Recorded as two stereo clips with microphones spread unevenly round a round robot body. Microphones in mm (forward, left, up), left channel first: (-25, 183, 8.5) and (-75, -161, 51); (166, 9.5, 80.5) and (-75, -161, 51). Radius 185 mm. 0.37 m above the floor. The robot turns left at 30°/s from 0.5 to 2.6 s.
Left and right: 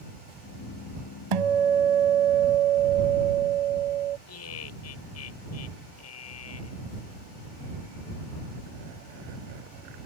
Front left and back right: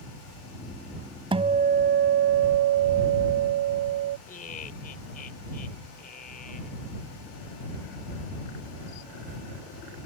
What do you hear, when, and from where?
1.3 s a guitar: 70° right; by 4.2 s 110° right
4.3 s laughter: 100° left